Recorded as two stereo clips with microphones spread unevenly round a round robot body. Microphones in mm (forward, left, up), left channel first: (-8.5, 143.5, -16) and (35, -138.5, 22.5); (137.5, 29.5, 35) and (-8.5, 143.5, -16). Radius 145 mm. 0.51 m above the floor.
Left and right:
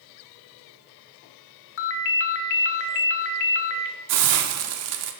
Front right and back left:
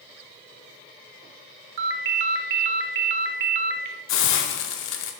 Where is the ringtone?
145° left, 0.5 m.